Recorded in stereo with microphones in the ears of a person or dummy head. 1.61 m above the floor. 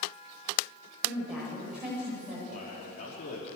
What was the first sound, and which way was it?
A woman speaking, 5° right (ahead or behind).